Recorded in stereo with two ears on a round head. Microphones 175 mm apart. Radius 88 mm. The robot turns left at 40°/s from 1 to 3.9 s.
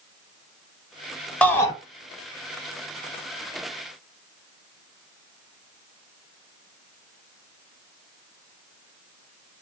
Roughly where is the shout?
Centre.